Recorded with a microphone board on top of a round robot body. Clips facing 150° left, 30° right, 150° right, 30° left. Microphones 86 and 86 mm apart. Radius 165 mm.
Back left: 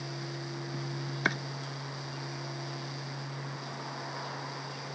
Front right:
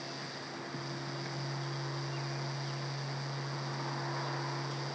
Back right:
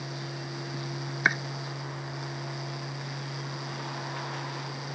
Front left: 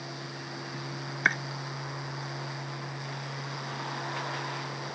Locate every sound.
1.2 s chopping: 125° left